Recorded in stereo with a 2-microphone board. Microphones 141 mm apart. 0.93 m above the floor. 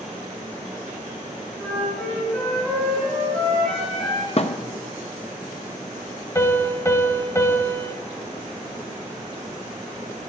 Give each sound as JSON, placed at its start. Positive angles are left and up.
{"t": 1.6, "sound": "a flute", "side_deg": 5, "distance_m": 6.0}
{"t": 4.4, "sound": "a thud", "side_deg": 45, "distance_m": 0.5}
{"t": 6.3, "sound": "a piano", "side_deg": 20, "distance_m": 1.1}